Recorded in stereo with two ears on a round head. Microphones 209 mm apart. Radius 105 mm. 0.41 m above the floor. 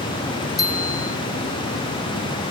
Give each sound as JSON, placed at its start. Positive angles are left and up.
{"t": 0.6, "sound": "a bicycle bell", "side_deg": 15}